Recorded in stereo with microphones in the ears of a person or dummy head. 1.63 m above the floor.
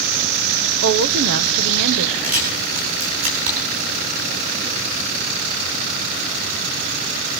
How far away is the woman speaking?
About 1.0 m.